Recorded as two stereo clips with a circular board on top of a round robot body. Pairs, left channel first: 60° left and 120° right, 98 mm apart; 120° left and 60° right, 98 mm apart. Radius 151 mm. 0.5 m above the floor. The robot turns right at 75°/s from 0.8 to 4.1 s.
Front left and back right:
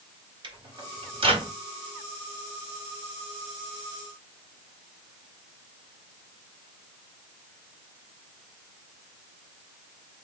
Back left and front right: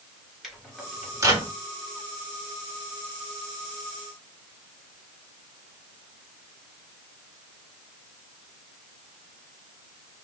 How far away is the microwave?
About 1.5 m.